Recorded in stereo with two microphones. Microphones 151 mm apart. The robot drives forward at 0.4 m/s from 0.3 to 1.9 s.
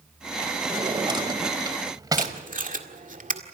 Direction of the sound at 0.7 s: 35° right (ahead or behind).